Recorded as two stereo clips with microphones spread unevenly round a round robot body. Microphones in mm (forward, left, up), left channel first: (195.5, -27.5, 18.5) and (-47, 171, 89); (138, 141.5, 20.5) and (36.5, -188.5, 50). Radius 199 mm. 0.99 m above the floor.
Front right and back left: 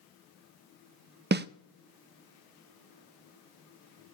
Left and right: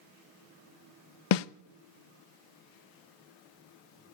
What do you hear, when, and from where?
1.3 s a snare drum: 75° left, 0.6 m